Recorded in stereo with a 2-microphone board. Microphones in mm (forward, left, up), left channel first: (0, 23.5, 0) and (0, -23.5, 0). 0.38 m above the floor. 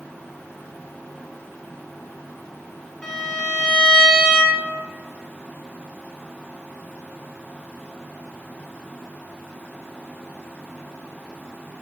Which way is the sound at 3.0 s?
20° left (ahead or behind).